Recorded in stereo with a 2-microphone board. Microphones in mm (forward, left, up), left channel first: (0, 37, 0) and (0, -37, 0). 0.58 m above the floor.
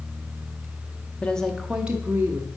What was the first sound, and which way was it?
A woman speaking, 20° left (ahead or behind).